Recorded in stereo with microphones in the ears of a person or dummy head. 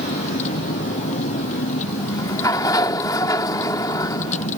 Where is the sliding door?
15° left (ahead or behind).